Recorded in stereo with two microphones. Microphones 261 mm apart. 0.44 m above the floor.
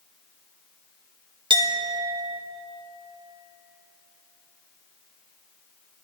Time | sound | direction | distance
1.5 | a clink | 20° right (ahead or behind) | 0.6 m